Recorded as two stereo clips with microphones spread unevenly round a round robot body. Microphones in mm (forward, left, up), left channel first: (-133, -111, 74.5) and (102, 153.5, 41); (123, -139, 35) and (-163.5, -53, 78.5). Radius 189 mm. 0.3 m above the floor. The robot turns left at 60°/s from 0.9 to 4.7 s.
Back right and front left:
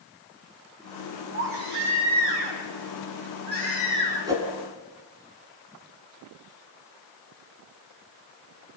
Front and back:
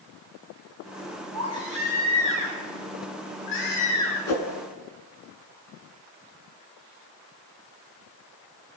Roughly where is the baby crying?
Behind left.